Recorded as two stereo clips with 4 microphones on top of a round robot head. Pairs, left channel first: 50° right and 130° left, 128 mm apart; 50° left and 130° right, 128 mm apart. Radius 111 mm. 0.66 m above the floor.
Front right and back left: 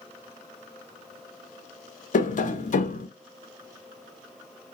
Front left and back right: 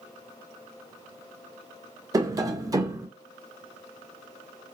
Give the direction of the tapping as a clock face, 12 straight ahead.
2 o'clock.